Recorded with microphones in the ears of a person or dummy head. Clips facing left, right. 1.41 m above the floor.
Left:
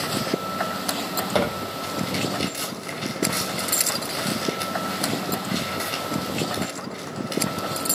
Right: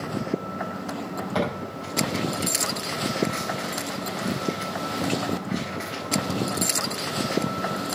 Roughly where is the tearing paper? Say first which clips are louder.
Left 3 dB; left.